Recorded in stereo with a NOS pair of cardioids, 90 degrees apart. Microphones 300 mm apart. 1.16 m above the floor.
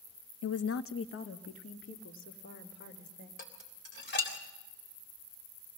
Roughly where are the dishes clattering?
Ahead left.